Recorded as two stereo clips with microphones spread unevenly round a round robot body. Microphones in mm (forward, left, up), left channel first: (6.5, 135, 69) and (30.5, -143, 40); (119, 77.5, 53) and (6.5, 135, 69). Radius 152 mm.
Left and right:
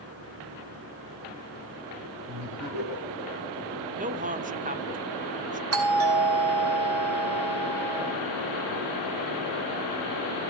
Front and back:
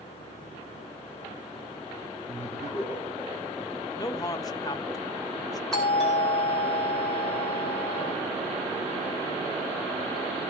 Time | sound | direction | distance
2.3 | laughter | 110° right | 7 m
4.0 | a man speaking | 50° right | 0.8 m
5.7 | a doorbell | 110° right | 2.5 m